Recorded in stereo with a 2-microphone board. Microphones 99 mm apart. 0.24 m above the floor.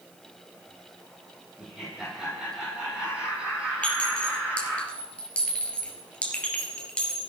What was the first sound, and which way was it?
Laughter, 5° right (ahead or behind).